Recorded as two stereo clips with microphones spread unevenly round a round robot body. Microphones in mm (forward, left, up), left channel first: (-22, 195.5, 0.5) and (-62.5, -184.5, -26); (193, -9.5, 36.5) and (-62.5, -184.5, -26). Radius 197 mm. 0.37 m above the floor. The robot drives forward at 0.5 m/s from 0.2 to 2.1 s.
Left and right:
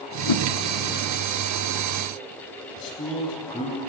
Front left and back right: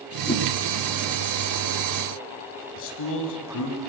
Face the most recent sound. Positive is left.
turn(degrees=10)